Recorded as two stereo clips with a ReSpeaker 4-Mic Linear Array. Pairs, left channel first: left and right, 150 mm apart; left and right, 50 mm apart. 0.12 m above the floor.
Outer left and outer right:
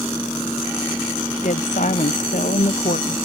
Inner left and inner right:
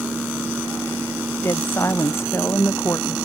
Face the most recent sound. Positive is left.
turn(degrees=60)  # may be behind; listen again after turning